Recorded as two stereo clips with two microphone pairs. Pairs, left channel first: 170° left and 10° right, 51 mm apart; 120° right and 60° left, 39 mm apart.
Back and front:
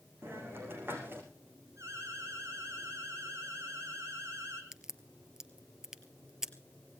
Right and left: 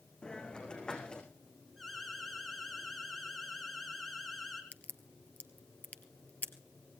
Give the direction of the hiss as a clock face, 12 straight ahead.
2 o'clock.